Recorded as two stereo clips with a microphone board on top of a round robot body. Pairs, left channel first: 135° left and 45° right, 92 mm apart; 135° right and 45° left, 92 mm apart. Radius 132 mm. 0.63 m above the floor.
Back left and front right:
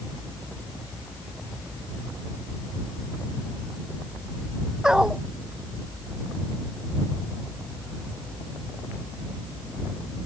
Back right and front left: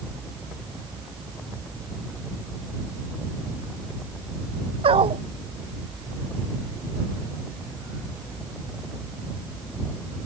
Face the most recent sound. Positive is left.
turn(degrees=40)